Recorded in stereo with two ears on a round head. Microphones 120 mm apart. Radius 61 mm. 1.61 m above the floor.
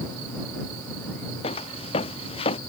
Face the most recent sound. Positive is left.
turn(degrees=45)  # may be behind; listen again after turning